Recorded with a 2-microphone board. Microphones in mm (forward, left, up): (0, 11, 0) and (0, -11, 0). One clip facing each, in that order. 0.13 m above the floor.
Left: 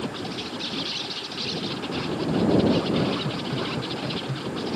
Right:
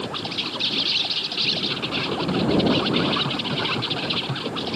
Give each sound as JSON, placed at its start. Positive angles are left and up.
{"t": 0.0, "sound": "an insect", "side_deg": -40}